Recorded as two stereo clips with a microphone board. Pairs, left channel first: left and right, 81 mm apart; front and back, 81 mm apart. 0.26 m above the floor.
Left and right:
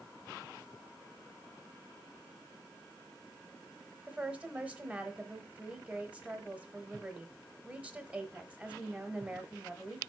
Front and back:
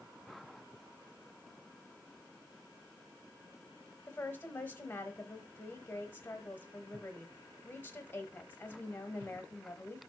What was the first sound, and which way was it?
A woman speaking, 35° right.